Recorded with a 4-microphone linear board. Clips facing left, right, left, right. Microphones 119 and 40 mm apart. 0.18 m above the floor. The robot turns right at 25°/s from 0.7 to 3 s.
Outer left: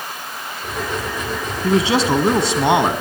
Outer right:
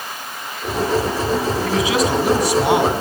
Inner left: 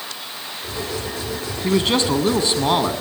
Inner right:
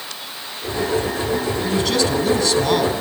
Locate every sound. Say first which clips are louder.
1.6 s a man speaking: outer left 6 dB, inner left 4 dB; 105° left, 1.8 m; by 2.9 s 135° left, 1.8 m